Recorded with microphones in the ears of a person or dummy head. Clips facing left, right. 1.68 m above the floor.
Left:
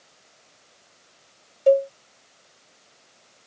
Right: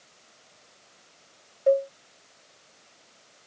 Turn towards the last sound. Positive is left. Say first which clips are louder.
# left 4 dB
turn(degrees=30)  # may be behind; listen again after turning